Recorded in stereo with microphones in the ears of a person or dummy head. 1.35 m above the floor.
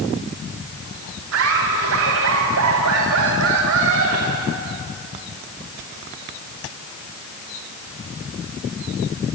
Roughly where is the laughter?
Right.